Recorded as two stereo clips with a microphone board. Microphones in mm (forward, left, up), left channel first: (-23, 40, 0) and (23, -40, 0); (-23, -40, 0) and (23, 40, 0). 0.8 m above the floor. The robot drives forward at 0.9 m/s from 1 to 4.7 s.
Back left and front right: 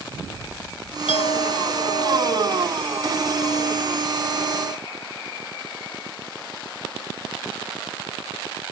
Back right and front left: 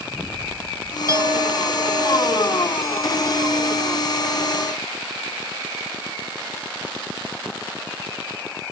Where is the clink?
115° left; by 4.8 s 125° left.